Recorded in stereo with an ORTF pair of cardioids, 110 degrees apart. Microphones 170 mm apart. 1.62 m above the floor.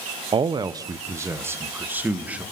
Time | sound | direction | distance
0.3 | a man speaking | 30° right | 1.0 m